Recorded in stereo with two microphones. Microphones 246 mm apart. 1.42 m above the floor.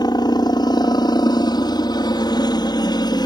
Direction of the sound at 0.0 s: 15° left (ahead or behind).